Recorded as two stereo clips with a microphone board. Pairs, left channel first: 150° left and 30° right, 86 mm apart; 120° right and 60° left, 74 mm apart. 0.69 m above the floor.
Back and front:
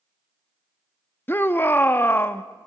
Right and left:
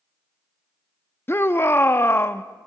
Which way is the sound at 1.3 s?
160° right.